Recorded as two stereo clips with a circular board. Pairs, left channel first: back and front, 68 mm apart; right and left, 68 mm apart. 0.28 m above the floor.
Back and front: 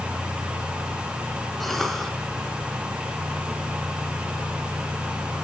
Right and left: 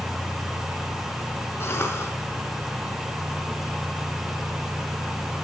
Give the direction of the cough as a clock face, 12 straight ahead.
3 o'clock.